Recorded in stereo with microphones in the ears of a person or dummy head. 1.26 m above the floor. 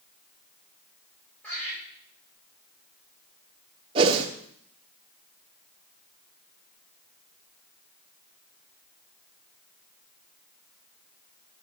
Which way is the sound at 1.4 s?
10° left (ahead or behind).